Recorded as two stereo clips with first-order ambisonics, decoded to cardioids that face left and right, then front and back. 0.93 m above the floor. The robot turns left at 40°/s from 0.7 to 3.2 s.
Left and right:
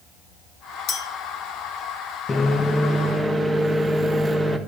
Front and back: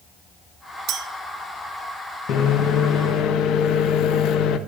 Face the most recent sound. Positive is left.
turn(degrees=-15)